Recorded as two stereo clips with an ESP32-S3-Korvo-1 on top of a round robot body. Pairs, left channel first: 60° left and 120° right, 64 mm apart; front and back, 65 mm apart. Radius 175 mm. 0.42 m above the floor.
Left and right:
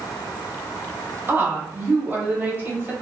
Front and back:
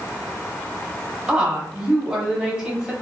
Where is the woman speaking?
120° right, 1.4 m.